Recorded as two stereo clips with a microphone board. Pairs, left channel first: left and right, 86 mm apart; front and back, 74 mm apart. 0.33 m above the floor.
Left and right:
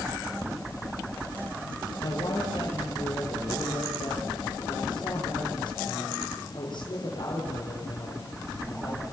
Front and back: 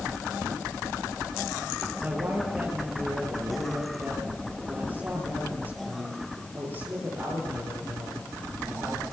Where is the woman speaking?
120° left, 7.5 m.